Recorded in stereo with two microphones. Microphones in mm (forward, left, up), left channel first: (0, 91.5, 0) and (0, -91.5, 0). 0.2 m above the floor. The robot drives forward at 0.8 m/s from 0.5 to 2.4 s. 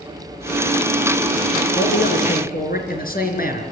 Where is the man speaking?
60° left (ahead or behind), 3.5 m.